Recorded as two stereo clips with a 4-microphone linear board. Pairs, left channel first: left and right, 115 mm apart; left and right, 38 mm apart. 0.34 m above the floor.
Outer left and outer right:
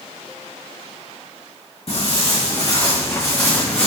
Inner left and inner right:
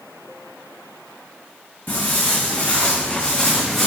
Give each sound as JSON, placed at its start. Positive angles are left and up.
{"t": 1.9, "sound": "footsteps", "side_deg": 60, "distance_m": 1.2}